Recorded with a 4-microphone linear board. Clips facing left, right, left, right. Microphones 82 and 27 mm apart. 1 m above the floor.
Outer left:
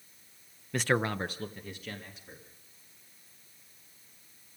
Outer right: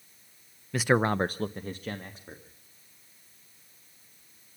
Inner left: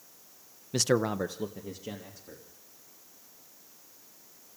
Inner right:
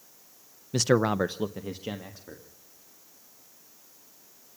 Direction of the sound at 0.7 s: Centre (ahead or behind).